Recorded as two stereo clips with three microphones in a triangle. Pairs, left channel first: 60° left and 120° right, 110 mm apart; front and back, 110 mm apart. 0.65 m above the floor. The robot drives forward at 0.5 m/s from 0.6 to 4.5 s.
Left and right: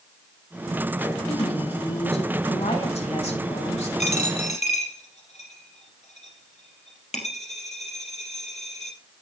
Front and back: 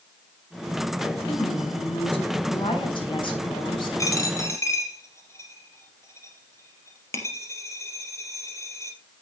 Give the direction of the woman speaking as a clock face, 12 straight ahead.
11 o'clock.